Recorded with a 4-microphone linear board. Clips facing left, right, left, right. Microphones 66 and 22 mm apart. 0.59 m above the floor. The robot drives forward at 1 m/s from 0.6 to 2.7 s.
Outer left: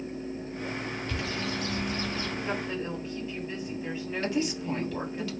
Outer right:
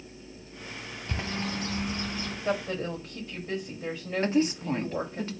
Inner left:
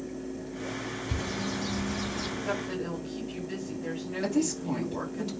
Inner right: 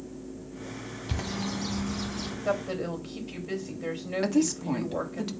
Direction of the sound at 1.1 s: 35° right (ahead or behind).